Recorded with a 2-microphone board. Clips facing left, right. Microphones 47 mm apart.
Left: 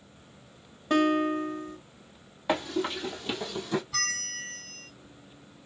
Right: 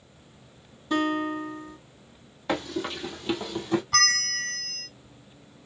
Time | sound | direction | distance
0.9 | a guitar | 45° left (ahead or behind) | 1.8 m
2.5 | running footsteps | 10° left (ahead or behind) | 2 m
3.9 | a bell | 60° right (ahead or behind) | 0.5 m